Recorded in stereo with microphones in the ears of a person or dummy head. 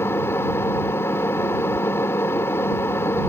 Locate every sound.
0.0 s an engine running: 15° left (ahead or behind)